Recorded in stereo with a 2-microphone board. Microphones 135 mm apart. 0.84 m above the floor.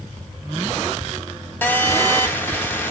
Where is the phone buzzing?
15° left (ahead or behind), 1.0 m.